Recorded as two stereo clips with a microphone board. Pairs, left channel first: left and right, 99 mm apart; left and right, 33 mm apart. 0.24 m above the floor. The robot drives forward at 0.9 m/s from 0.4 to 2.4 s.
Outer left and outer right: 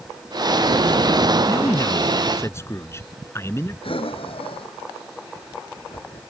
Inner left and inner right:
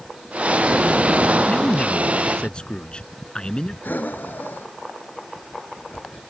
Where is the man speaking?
35° left (ahead or behind); by 3.7 s 25° left (ahead or behind).